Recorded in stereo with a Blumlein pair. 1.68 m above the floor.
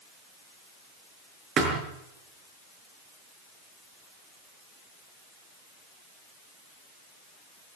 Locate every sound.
1.6 s a thud: 30° right, 6 m